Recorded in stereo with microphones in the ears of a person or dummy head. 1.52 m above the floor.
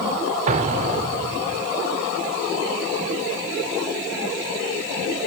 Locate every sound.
0.5 s an explosion: 40° right (ahead or behind), 0.5 m